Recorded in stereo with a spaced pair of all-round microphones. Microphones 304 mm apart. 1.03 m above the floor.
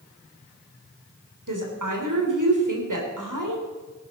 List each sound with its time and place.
1.5 s a woman speaking: 80° right, 3 m